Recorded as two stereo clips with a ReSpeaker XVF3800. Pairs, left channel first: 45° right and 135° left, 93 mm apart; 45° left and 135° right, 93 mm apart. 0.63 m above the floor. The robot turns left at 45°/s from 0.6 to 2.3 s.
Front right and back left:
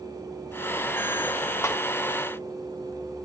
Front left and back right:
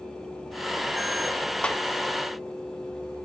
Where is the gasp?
No gasp in this recording.